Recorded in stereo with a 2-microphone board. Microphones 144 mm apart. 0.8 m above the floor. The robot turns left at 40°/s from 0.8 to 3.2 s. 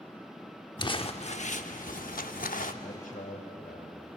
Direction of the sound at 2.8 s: 85° left.